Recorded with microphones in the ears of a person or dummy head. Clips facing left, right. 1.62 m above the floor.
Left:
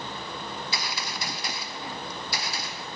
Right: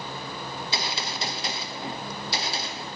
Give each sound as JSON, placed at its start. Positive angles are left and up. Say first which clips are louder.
{"t": 0.5, "sound": "a gunshot", "louder": "right 2 dB", "side_deg": -25, "distance_m": 0.6}